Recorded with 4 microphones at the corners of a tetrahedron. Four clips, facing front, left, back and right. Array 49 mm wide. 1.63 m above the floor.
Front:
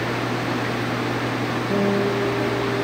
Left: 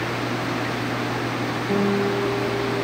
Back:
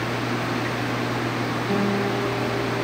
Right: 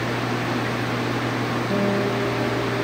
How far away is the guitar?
About 4 m.